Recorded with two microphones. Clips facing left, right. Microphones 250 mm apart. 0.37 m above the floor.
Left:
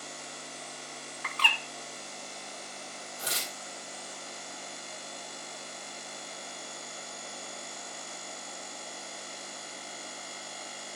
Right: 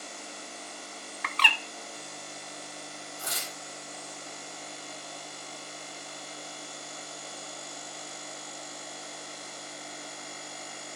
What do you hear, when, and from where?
1.2 s a bird: 75° right (ahead or behind), 0.6 m
3.2 s tearing paper: 75° left (ahead or behind), 2.0 m